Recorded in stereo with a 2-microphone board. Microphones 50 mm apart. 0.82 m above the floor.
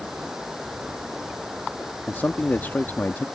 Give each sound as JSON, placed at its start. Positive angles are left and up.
{"t": 0.0, "sound": "running water", "side_deg": -10}
{"t": 2.1, "sound": "a man speaking", "side_deg": 45}